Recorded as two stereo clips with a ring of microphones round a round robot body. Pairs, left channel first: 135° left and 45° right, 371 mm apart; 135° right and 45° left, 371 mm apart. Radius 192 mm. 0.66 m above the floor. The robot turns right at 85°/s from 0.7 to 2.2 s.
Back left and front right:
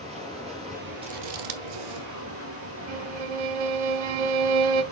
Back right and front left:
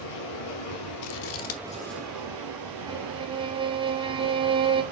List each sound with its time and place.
0.0 s running water: 120° right, 2.5 m; by 4.9 s 10° left, 2.5 m
1.0 s scissors: 120° right, 0.9 m; by 2.1 s 35° right, 0.9 m
2.9 s a violin: 30° right, 0.7 m